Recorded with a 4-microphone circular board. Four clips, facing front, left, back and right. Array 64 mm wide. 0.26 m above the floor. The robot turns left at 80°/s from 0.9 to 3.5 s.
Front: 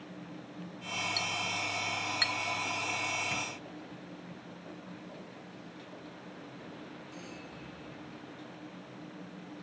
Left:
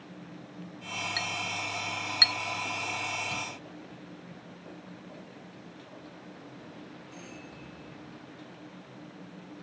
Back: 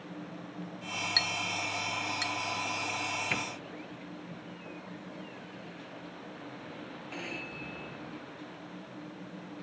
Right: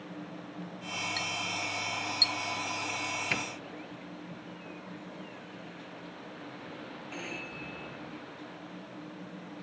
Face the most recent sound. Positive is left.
turn(degrees=-135)